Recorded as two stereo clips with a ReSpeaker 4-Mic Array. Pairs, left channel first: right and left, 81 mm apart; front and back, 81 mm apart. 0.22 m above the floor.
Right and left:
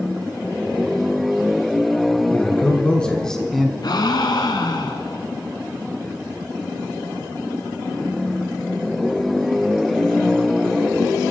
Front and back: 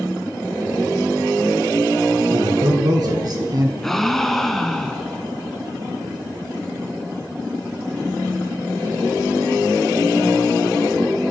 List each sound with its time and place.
2.3 s a man speaking: 160° right, 2.5 m; by 3.7 s straight behind, 1.5 m
3.8 s a gasp: 85° right, 1.0 m